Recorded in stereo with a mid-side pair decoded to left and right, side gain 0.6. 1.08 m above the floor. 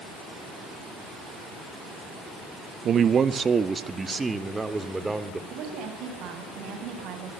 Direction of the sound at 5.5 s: 65° right.